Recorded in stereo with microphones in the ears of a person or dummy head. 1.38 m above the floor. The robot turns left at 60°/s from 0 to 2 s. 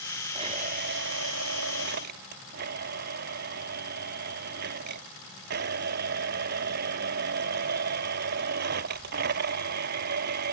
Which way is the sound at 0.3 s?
30° right.